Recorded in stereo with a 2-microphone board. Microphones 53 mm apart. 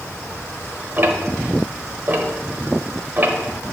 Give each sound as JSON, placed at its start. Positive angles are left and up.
{"t": 1.0, "sound": "ticking", "side_deg": -40, "distance_m": 0.9}